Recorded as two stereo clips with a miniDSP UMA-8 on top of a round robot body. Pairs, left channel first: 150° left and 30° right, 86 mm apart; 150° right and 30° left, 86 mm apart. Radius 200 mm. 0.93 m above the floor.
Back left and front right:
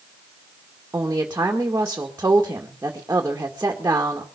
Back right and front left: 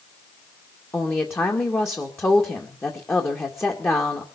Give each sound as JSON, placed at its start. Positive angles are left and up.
{"t": 0.9, "sound": "a woman speaking", "azimuth_deg": -90, "distance_m": 2.0}